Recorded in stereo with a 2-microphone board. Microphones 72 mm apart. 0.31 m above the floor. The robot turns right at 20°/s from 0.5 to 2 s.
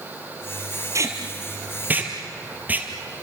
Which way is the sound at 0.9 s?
45° right (ahead or behind).